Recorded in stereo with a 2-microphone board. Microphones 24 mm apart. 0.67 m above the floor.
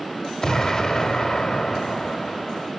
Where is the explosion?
25° left (ahead or behind), 0.9 m.